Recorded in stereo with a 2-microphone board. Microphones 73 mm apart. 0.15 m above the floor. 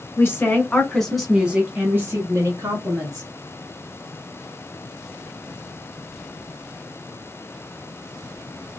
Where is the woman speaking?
35° left (ahead or behind), 1.4 m; by 3.3 s 55° right (ahead or behind), 2.0 m.